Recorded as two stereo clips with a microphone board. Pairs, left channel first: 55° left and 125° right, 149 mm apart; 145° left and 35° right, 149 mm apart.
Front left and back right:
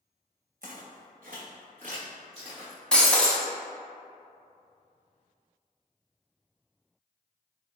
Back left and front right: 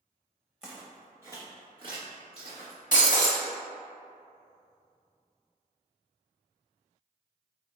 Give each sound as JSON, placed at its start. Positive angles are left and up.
{"t": 0.6, "sound": "footsteps", "azimuth_deg": -120, "distance_m": 1.5}
{"t": 2.9, "sound": "breaking glass", "azimuth_deg": 140, "distance_m": 0.9}